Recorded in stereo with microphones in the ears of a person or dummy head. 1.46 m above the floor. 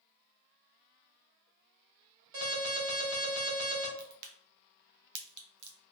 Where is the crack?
60° right (ahead or behind), 0.9 m.